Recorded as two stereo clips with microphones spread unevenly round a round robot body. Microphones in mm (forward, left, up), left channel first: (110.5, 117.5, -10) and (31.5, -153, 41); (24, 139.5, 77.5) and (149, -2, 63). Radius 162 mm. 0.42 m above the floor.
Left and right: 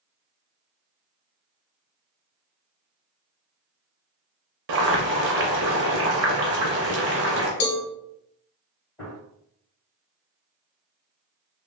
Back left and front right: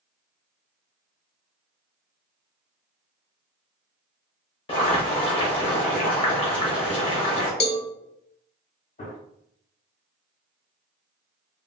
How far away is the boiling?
About 0.6 m.